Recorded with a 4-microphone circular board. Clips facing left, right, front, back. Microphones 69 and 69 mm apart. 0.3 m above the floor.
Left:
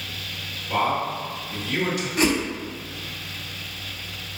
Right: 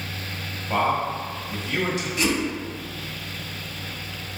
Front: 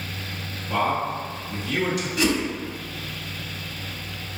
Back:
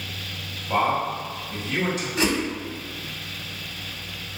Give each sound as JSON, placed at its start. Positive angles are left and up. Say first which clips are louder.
{"t": 0.7, "sound": "a man speaking", "louder": "right 1 dB, back 1 dB", "azimuth_deg": -140, "distance_m": 1.8}
{"t": 2.2, "sound": "a whoosh", "louder": "left 3 dB, front 1 dB", "azimuth_deg": 125, "distance_m": 0.9}